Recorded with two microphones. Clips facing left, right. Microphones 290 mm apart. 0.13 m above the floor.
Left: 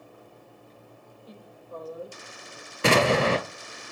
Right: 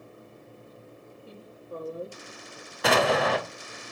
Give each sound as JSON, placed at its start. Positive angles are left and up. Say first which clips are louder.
{"t": 1.2, "sound": "a woman speaking", "louder": "right 2 dB", "side_deg": -30, "distance_m": 4.5}
{"t": 2.8, "sound": "an explosion", "louder": "left 2 dB", "side_deg": 30, "distance_m": 1.2}